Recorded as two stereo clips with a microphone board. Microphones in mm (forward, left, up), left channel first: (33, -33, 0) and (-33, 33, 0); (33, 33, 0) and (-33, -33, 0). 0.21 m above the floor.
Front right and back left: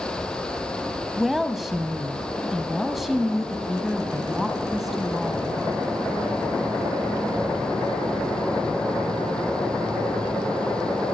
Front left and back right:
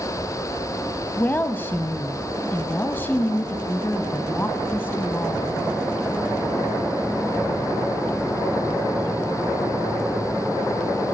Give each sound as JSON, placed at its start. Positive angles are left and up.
{"t": 1.2, "sound": "a woman speaking", "azimuth_deg": 50, "distance_m": 1.0}